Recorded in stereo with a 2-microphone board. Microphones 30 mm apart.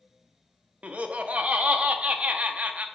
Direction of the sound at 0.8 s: 45° right (ahead or behind).